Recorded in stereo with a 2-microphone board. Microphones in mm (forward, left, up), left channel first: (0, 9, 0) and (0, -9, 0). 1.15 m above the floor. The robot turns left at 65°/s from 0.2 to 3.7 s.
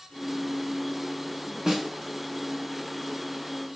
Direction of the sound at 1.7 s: 30° right (ahead or behind).